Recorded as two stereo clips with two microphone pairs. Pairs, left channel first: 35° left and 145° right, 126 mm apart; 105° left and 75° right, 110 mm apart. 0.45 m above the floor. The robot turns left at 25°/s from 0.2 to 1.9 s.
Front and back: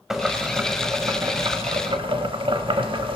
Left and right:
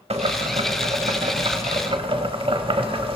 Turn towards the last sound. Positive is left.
turn(degrees=-105)